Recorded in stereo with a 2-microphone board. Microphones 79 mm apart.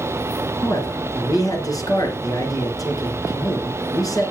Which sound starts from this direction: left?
A man speaking, at 0.6 s.